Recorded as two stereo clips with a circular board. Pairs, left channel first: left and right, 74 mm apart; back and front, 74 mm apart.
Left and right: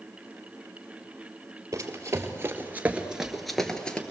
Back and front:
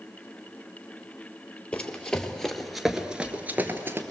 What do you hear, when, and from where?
1.7 s running footsteps: 115° right, 2 m; by 4.0 s 30° left, 1.8 m